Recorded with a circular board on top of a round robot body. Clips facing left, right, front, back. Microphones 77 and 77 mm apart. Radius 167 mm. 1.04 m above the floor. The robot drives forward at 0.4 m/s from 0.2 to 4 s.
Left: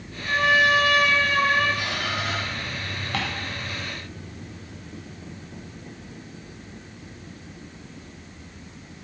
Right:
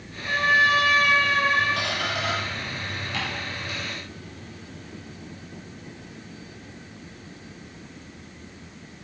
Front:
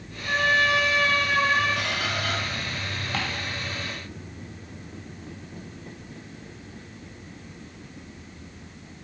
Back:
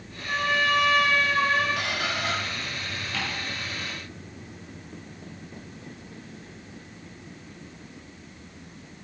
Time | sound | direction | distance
0.2 | a trumpet | 20° left | 3 m
1.8 | a squeak | 95° right | 0.7 m
3.1 | ticking | 50° left | 0.6 m